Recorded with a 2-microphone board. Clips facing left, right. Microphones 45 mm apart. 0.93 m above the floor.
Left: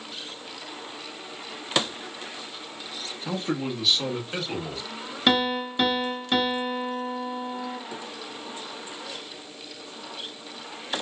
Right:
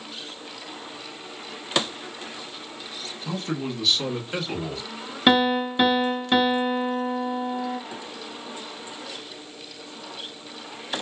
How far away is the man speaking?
About 1.0 m.